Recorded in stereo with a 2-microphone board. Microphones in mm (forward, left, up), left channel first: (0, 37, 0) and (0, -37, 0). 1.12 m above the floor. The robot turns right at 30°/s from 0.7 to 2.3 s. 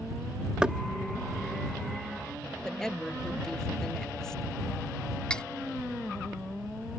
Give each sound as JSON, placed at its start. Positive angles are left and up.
{"t": 0.6, "sound": "knocking", "side_deg": -15}
{"t": 2.6, "sound": "a woman speaking", "side_deg": 10}
{"t": 5.3, "sound": "cutlery clinking", "side_deg": 15}